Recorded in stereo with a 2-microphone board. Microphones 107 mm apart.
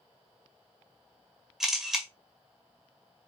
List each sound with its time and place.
1.6 s a camera shutter: 5° right (ahead or behind), 1.8 m